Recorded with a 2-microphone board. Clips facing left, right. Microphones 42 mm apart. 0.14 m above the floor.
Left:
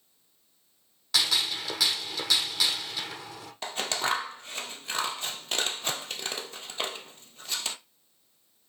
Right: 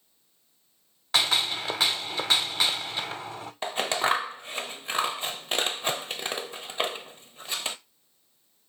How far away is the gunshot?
About 1.1 m.